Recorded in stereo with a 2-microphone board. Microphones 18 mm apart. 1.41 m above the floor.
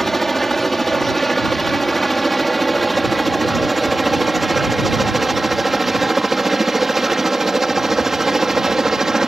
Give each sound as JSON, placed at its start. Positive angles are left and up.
{"t": 0.0, "sound": "a helicopter", "side_deg": 15}